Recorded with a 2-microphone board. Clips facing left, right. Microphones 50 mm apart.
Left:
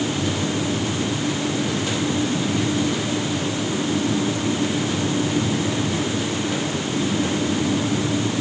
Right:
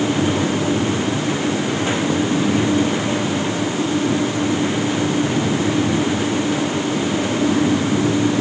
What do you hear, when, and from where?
Only background noise.